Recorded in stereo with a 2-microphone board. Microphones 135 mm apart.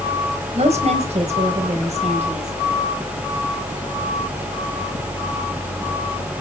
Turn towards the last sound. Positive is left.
turn(degrees=-55)  # may be behind; listen again after turning